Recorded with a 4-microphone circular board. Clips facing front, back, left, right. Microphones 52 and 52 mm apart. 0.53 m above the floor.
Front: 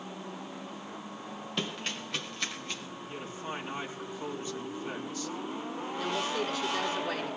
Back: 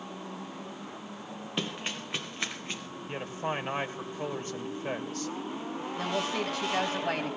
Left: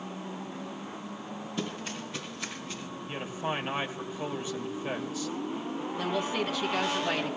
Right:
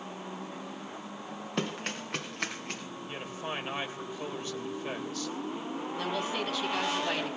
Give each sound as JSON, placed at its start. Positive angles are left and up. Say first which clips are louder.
{"t": 1.6, "sound": "running footsteps", "louder": "back 1 dB, right 3 dB", "azimuth_deg": -100, "distance_m": 2.5}
{"t": 3.1, "sound": "a man speaking", "louder": "back 6 dB, left 5 dB", "azimuth_deg": 170, "distance_m": 2.5}
{"t": 6.0, "sound": "a woman speaking", "louder": "back 1 dB, left 3 dB", "azimuth_deg": 175, "distance_m": 4.0}